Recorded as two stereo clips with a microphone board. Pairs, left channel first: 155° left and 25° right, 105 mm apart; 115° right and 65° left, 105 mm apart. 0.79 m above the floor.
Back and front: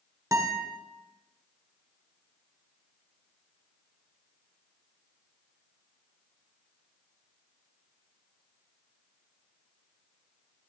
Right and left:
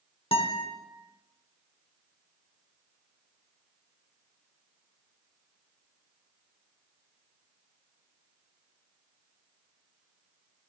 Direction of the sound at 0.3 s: 80° right.